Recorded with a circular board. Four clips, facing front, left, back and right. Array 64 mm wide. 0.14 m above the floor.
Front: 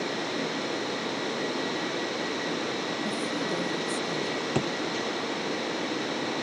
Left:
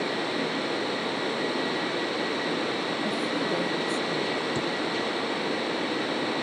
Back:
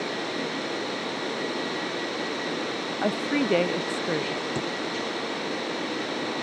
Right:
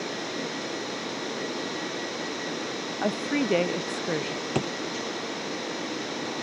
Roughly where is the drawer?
Ahead right.